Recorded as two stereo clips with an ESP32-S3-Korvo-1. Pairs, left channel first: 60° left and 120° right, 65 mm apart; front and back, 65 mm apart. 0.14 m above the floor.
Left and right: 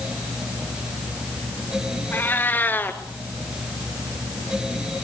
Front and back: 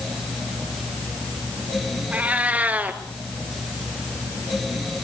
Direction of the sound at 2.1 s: 115° left.